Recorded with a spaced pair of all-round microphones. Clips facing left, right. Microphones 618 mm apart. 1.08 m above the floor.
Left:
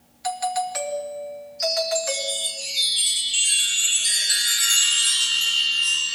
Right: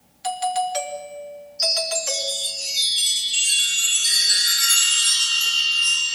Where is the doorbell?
55° right (ahead or behind), 2.5 m.